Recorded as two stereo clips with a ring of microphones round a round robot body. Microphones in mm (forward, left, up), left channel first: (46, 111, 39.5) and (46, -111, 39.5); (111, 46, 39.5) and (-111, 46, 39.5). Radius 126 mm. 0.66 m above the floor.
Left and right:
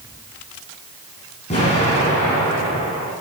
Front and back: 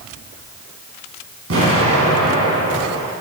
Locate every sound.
1.5 s an explosion: 155° left, 3.5 m